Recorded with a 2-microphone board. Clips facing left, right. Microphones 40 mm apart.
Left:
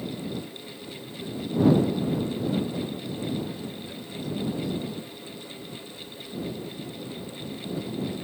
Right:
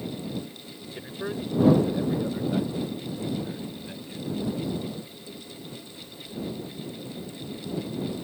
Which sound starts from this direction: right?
A man speaking, at 0.9 s.